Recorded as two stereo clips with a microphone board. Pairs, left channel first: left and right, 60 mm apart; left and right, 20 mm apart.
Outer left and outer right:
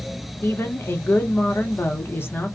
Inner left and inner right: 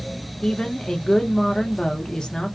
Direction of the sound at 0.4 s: 40° left (ahead or behind).